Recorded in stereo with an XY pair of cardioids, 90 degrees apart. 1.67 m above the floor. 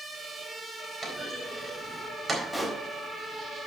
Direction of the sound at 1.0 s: 25° right.